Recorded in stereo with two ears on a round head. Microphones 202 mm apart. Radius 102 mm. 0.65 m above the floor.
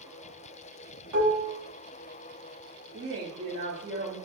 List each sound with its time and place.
1.1 s dishes clattering: 70° right (ahead or behind), 1.2 m
2.9 s a woman speaking: 60° right (ahead or behind), 1.4 m